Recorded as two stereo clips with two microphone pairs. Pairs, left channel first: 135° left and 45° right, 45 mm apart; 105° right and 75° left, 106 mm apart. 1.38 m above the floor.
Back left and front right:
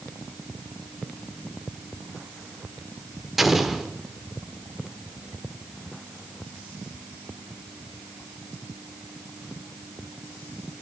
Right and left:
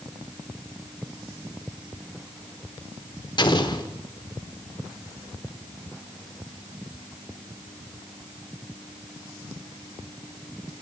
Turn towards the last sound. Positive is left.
turn(degrees=-125)